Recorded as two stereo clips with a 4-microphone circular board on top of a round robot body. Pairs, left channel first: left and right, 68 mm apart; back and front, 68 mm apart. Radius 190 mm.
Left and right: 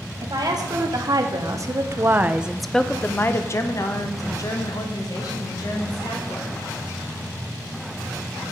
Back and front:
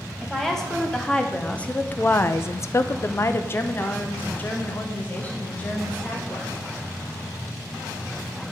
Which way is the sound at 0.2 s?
95° right.